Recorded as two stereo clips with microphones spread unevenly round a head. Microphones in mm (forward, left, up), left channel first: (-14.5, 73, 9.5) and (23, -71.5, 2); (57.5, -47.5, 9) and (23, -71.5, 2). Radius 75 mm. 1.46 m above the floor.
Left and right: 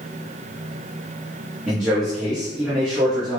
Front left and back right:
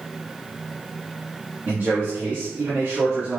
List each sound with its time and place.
1.7 s a man speaking: 170° right, 2 m